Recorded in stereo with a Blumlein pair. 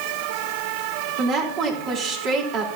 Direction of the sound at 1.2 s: 30° right.